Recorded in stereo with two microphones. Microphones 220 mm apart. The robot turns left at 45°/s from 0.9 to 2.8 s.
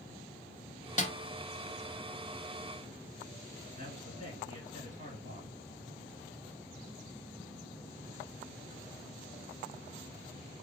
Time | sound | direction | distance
1.0 | a snare drum | 35° left (ahead or behind) | 0.7 m
3.8 | a man speaking | 40° right (ahead or behind) | 3 m